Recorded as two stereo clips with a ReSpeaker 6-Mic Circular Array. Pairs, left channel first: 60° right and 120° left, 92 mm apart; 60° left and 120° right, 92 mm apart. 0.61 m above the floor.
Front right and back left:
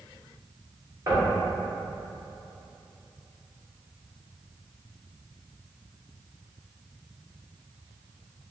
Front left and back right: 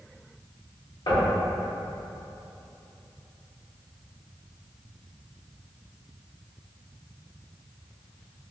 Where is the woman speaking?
I don't hear a woman speaking.